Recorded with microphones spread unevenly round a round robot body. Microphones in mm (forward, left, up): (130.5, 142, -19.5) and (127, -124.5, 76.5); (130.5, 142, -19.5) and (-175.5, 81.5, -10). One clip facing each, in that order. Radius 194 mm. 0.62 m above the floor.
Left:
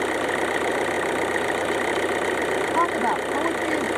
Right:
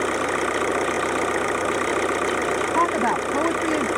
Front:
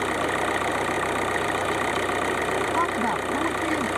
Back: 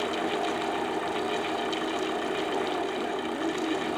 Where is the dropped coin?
I don't hear a dropped coin.